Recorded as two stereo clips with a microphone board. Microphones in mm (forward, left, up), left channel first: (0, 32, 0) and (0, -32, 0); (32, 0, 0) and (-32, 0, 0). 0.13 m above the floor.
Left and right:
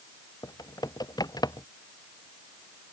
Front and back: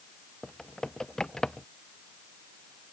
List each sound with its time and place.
0.4 s typing on a keyboard: 80° left